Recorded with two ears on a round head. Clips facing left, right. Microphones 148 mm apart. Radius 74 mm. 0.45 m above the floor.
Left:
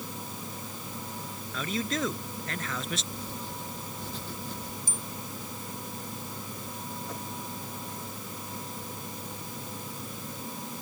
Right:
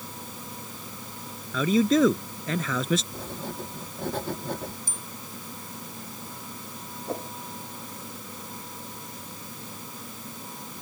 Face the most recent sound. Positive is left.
turn(degrees=-25)  # may be behind; listen again after turning